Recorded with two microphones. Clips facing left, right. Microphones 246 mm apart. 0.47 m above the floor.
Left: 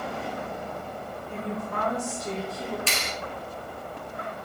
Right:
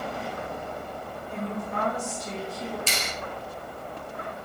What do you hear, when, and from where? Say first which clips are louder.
1.3 s a woman speaking: right 1 dB; 60° left (ahead or behind), 1.7 m
2.9 s a clap: even; 65° left (ahead or behind), 1.3 m